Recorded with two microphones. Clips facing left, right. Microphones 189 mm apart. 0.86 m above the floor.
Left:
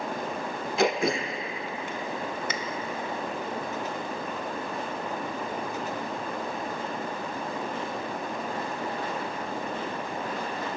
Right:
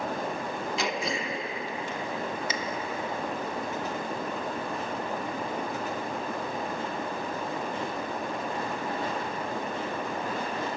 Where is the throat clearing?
55° left (ahead or behind), 0.6 m.